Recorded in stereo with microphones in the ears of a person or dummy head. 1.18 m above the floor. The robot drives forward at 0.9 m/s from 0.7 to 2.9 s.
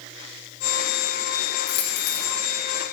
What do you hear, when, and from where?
1.7 s a dropped coin: 65° left (ahead or behind), 1.2 m; by 2.3 s 50° left (ahead or behind), 1.4 m